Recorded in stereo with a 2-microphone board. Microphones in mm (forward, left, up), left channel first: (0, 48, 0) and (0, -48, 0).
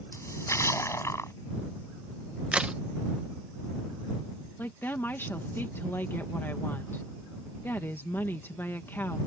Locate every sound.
0.1 s a splash: 30° left (ahead or behind)
2.5 s a crack: 10° right (ahead or behind)
4.6 s a woman speaking: 20° left (ahead or behind)